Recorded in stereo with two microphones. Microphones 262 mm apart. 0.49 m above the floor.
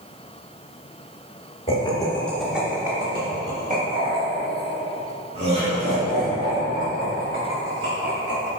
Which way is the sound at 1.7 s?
20° left (ahead or behind).